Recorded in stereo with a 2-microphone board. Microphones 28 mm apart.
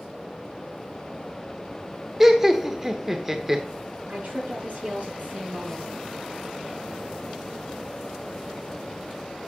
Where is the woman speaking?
80° right, 5 m.